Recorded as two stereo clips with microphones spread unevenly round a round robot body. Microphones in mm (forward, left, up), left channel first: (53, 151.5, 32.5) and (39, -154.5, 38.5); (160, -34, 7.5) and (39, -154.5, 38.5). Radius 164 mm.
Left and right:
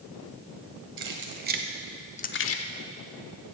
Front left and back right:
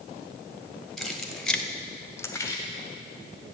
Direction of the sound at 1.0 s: 40° right.